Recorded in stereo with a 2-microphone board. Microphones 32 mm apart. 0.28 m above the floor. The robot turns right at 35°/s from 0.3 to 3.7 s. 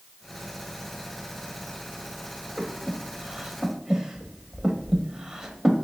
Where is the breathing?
25° right (ahead or behind), 0.5 m; by 5.8 s 15° right (ahead or behind), 0.5 m.